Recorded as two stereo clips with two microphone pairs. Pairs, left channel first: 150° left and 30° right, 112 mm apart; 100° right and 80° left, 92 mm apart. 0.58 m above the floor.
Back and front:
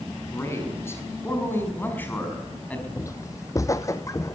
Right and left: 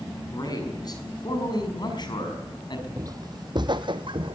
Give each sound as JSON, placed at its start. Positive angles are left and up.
{"t": 0.3, "sound": "a man speaking", "azimuth_deg": -145, "distance_m": 5.5}
{"t": 3.0, "sound": "footsteps", "azimuth_deg": 105, "distance_m": 0.8}